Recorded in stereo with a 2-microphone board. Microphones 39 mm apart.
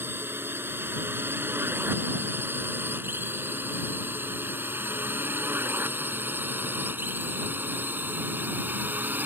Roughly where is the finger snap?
I don't hear a finger snap.